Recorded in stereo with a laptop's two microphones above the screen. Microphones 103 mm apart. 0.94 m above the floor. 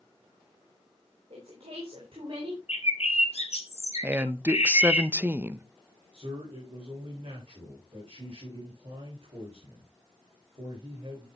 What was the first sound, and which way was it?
A woman speaking, 80° right.